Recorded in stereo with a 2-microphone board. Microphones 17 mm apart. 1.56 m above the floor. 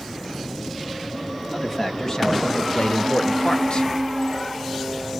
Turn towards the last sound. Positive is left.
turn(degrees=55)  # may be behind; listen again after turning